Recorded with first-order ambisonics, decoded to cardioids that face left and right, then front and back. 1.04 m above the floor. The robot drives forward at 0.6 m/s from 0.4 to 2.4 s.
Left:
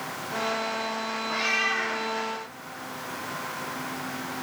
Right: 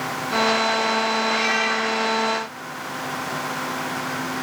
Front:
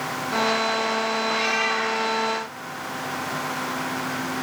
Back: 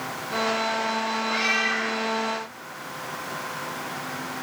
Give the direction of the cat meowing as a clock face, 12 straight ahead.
4 o'clock.